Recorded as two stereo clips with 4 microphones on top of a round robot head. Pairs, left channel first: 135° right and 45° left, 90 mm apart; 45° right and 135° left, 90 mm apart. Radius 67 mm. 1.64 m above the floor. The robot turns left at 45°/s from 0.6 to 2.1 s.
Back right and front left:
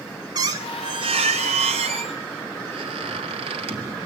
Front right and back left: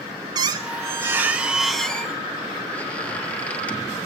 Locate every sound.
0.3 s a squeak: 90° left, 1.3 m; by 4.0 s 25° left, 1.3 m